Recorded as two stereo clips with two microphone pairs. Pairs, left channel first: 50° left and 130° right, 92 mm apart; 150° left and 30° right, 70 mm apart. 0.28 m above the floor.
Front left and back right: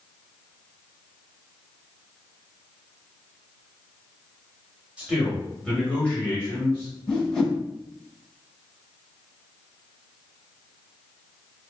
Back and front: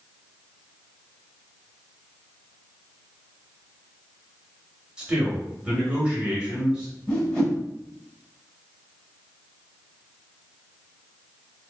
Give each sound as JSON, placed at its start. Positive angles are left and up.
{"t": 5.0, "sound": "a man speaking", "azimuth_deg": -75, "distance_m": 1.1}
{"t": 7.1, "sound": "a whoosh", "azimuth_deg": 110, "distance_m": 1.3}